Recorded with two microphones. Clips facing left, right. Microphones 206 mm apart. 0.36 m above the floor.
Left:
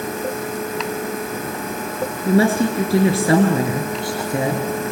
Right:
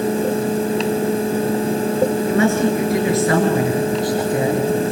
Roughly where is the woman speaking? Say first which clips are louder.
Even; left.